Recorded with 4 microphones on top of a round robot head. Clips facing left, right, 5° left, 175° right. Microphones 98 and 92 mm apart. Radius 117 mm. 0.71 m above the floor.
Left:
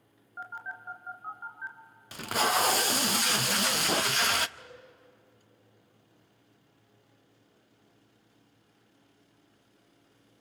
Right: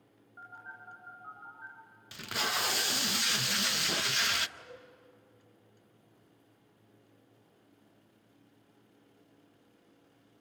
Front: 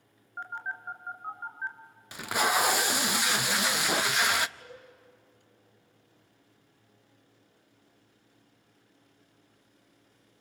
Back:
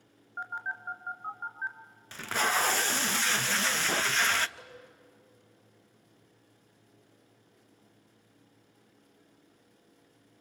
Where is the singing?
I don't hear singing.